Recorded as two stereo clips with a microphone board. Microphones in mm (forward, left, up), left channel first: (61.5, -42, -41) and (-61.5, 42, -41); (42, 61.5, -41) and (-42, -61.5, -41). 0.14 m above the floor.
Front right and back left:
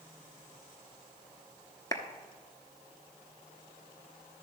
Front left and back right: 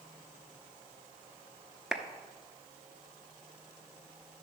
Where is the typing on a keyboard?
I don't hear typing on a keyboard.